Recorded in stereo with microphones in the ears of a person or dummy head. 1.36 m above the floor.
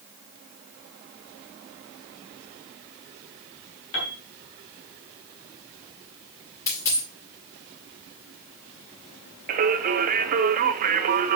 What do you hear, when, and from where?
3.9 s a piano: 65° left (ahead or behind), 2.5 m
6.7 s a dropped coin: 15° left (ahead or behind), 2.5 m
9.5 s singing: 45° right (ahead or behind), 0.6 m